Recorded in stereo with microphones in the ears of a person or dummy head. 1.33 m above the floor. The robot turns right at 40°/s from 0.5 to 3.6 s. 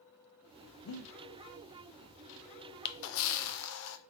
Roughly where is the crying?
No crying in this recording.